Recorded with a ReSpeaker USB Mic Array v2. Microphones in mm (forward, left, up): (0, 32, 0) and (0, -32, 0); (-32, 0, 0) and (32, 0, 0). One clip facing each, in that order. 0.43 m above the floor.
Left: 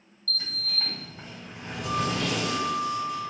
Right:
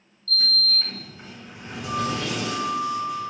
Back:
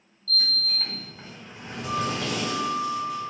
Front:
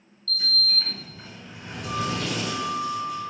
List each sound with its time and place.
0.3 s a sliding door: 125° left, 2 m